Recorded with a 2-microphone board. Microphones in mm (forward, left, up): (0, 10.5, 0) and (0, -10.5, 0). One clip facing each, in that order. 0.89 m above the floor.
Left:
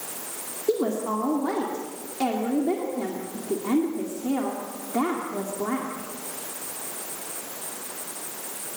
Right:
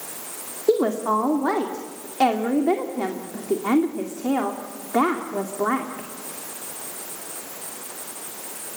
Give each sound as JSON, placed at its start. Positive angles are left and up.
{"t": 0.7, "sound": "a woman speaking", "side_deg": -40, "distance_m": 2.5}